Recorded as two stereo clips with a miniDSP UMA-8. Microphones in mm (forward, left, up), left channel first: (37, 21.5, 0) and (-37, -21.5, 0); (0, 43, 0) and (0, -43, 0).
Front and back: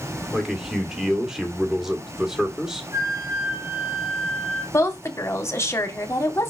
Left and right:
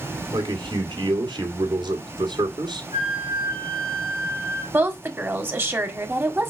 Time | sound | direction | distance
0.3 | a man speaking | 65° right | 2 m
2.9 | a flute | 100° right | 2.0 m
4.7 | a woman speaking | 25° right | 1.5 m